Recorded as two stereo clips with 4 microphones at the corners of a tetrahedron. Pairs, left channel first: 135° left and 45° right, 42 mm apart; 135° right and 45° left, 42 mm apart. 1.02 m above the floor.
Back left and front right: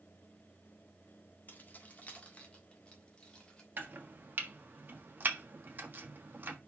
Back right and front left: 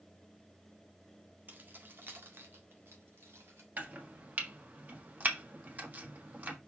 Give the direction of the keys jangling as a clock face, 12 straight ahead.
9 o'clock.